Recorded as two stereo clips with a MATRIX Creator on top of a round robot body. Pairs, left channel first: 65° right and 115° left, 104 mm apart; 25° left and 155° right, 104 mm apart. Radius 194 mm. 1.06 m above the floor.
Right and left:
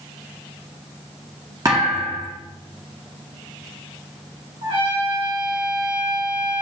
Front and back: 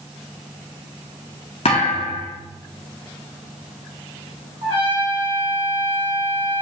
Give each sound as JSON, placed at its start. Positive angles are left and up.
{"t": 1.6, "sound": "a thud", "azimuth_deg": 55, "distance_m": 0.7}
{"t": 4.6, "sound": "a trumpet", "azimuth_deg": 155, "distance_m": 2.0}